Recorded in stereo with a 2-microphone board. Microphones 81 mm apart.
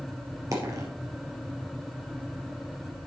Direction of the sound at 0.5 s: 40° right (ahead or behind).